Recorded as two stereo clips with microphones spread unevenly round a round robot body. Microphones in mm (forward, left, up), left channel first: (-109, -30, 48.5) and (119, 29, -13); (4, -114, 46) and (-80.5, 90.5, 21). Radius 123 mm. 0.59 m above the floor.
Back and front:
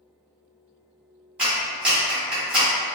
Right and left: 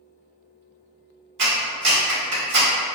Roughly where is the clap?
Left.